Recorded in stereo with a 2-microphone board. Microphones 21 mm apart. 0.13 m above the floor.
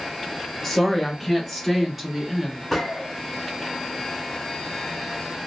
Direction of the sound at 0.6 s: 10° left (ahead or behind).